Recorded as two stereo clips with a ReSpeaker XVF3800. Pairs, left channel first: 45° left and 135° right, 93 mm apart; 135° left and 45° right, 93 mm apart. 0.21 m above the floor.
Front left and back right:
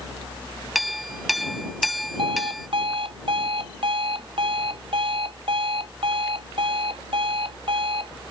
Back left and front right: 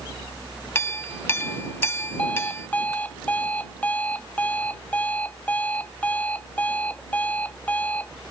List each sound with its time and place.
0.8 s a clink: 140° left
2.2 s an alarm clock: 150° right